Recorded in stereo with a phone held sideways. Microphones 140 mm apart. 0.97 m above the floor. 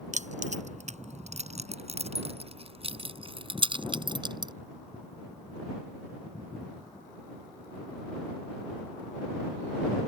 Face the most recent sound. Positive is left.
turn(degrees=-30)  # may be behind; listen again after turning